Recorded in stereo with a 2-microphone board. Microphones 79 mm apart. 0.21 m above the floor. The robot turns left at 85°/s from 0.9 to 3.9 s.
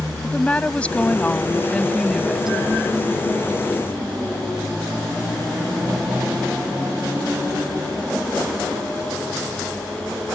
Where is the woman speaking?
15° left (ahead or behind); by 2.5 s 10° right (ahead or behind).